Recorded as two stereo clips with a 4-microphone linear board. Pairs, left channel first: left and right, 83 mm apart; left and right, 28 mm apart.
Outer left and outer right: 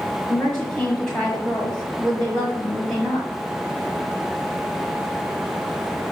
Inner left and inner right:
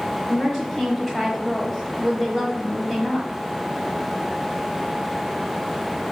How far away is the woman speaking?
About 1.6 m.